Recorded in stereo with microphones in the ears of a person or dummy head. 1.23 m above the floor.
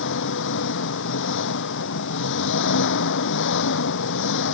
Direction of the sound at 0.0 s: 65° left (ahead or behind).